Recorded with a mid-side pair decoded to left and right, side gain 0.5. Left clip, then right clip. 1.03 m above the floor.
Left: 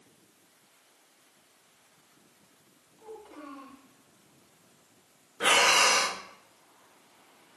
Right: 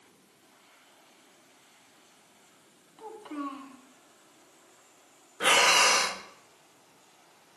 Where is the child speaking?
60° right, 6 m.